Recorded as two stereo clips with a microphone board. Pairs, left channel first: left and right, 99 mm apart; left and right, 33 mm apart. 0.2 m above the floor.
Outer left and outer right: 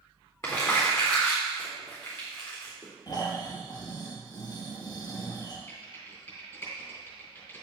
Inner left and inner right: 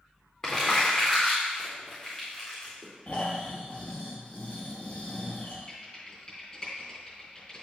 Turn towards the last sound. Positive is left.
turn(degrees=25)  # may be behind; listen again after turning